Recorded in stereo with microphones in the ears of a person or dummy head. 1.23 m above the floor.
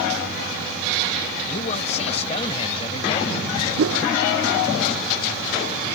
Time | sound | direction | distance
1.5 | a man speaking | 35° left (ahead or behind) | ?
3.8 | a whoosh | 65° right (ahead or behind) | ?